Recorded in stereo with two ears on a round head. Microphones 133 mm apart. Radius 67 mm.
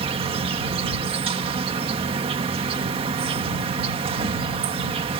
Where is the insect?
40° right (ahead or behind).